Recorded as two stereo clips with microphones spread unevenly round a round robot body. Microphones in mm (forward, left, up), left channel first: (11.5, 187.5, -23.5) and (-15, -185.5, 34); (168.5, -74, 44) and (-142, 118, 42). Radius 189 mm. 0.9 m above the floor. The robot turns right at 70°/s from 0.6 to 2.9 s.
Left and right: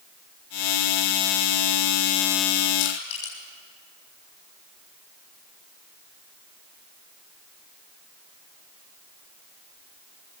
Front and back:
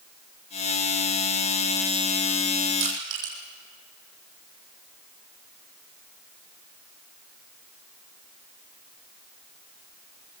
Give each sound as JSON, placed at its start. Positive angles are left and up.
{"t": 2.8, "sound": "crushing", "azimuth_deg": 100, "distance_m": 10.0}